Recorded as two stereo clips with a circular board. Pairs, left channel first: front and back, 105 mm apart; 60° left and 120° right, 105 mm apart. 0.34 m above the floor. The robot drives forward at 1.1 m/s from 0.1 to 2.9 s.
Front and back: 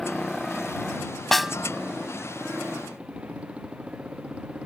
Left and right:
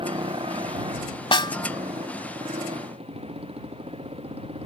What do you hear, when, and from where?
0.0 s a motorcycle: 85° right; by 4.7 s 100° right
1.3 s a snare drum: 85° left; by 1.5 s 100° left